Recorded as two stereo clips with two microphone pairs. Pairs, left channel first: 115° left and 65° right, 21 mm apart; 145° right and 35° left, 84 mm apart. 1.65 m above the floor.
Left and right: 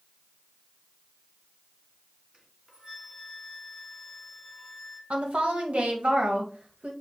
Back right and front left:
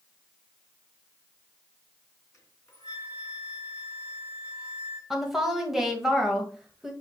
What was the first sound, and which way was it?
A flute, 95° right.